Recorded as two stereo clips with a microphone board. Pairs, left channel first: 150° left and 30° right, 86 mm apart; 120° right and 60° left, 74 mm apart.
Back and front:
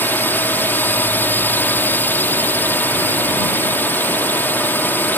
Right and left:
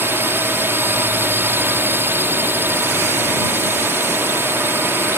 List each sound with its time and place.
0.0 s a drone: 95° left